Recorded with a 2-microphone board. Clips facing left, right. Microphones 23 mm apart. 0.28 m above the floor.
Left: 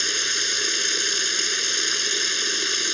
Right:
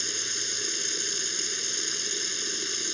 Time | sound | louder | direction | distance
0.0 | running water | left 8 dB | 45° left (ahead or behind) | ?